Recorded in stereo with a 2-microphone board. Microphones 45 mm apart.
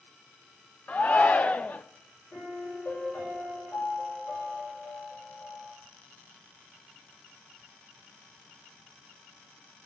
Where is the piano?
55° left (ahead or behind), 6 m.